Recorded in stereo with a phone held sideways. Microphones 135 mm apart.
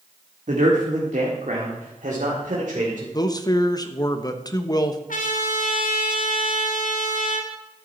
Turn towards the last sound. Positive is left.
turn(degrees=80)